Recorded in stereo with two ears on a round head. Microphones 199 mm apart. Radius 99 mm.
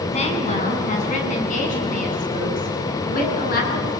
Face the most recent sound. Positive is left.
turn(degrees=45)  # may be behind; listen again after turning